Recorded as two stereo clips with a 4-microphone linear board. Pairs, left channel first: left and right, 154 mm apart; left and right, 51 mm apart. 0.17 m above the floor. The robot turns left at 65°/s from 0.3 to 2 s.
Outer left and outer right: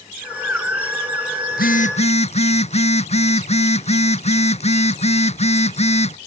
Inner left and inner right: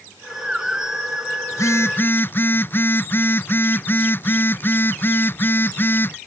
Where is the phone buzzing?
75° left; by 6.2 s 45° left.